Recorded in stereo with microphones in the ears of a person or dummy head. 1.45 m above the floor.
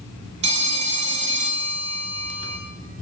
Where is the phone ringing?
30° right (ahead or behind), 0.7 m.